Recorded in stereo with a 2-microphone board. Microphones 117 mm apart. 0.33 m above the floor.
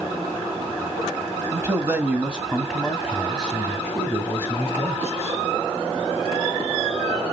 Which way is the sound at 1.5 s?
25° right (ahead or behind).